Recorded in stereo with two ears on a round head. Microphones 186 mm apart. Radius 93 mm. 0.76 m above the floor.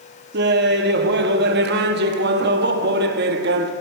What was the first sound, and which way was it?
Laughter, 50° right (ahead or behind).